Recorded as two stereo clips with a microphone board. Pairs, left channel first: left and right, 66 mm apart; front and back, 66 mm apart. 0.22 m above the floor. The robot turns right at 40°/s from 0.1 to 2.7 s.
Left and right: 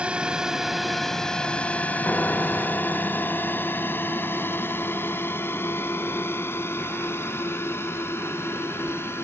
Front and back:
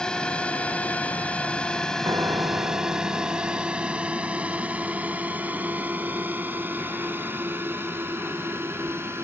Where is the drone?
50° right; by 9.2 s 135° left.